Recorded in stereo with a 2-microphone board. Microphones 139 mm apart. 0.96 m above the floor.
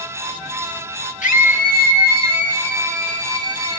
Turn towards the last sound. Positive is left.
turn(degrees=35)  # may be behind; listen again after turning